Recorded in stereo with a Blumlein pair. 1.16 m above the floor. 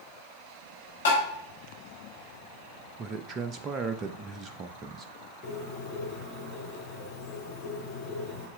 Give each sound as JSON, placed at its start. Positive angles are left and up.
{"t": 1.1, "sound": "tapping", "azimuth_deg": 60, "distance_m": 4.0}
{"t": 3.0, "sound": "a man speaking", "azimuth_deg": -25, "distance_m": 0.5}
{"t": 5.4, "sound": "a bird", "azimuth_deg": 25, "distance_m": 3.0}